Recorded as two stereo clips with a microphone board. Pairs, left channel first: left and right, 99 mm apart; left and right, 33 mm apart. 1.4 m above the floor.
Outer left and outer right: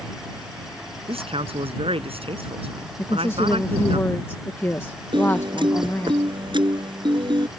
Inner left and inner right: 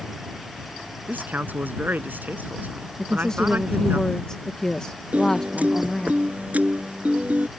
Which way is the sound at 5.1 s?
50° right (ahead or behind).